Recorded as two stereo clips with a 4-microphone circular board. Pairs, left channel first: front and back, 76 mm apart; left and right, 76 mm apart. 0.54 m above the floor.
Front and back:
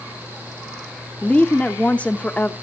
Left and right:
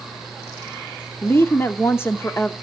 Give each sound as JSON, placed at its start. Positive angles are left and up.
{"t": 1.2, "sound": "a woman speaking", "azimuth_deg": 60, "distance_m": 0.9}